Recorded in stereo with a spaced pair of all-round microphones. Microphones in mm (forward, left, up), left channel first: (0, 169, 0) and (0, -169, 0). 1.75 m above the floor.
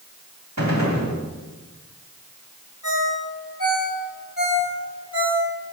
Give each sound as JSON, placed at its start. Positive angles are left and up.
{"t": 0.6, "sound": "a gunshot", "side_deg": -50, "distance_m": 2.5}
{"t": 2.8, "sound": "a ringtone", "side_deg": 65, "distance_m": 4.0}